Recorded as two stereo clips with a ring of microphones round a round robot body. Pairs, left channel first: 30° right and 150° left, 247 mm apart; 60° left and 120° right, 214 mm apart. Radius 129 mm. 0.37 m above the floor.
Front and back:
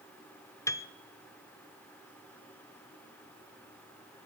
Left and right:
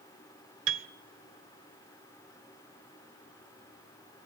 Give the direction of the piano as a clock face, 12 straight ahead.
4 o'clock.